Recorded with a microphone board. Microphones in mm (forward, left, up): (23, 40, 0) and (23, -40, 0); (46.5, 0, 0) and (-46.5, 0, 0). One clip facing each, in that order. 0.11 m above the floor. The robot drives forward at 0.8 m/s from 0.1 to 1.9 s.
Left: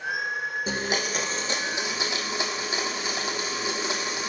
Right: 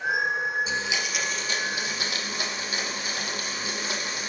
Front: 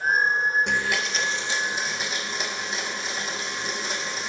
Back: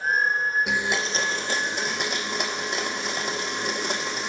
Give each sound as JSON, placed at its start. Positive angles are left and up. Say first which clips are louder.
{"t": 0.7, "sound": "a blender", "louder": "left 1 dB, even", "azimuth_deg": 95, "distance_m": 0.6}